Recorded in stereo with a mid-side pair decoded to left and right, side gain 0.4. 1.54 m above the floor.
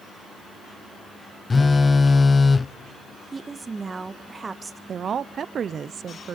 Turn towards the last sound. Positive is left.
turn(degrees=-55)